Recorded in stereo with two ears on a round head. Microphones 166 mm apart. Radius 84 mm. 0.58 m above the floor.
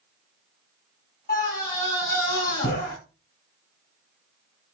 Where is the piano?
No piano in this recording.